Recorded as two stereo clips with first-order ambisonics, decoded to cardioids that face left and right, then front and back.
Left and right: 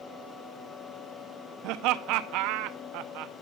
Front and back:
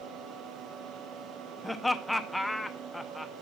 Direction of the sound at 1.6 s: 85° right.